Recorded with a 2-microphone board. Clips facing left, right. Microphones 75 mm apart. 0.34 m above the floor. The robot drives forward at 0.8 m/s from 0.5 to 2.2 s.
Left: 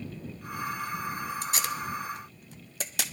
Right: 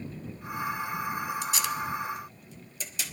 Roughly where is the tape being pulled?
Left.